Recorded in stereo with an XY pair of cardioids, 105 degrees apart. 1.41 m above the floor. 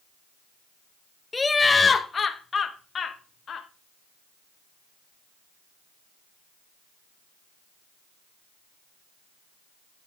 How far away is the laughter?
About 1.2 m.